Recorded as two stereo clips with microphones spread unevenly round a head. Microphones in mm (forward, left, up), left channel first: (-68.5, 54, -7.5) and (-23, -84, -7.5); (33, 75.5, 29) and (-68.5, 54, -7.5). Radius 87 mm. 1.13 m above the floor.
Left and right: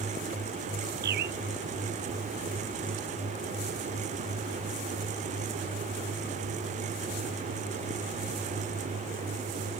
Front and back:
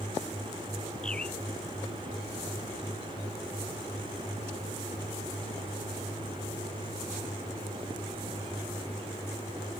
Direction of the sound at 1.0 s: 70° right.